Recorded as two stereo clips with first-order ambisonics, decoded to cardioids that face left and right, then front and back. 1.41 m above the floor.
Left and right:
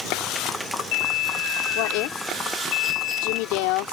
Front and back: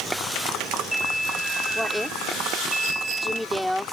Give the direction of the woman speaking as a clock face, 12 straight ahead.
9 o'clock.